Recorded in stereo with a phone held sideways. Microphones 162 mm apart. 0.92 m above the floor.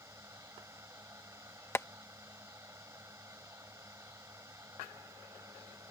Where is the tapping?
15° left (ahead or behind).